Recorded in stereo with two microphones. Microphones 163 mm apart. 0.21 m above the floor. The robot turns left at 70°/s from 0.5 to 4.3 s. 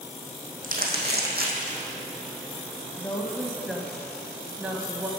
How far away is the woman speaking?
About 0.9 m.